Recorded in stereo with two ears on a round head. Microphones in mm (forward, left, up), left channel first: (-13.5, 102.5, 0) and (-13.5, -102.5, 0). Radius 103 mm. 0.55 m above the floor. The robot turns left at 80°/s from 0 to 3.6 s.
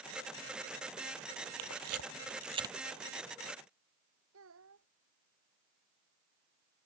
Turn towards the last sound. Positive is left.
turn(degrees=-60)  # may be behind; listen again after turning